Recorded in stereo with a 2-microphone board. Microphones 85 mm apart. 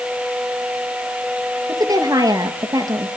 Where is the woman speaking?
55° right (ahead or behind), 2 m.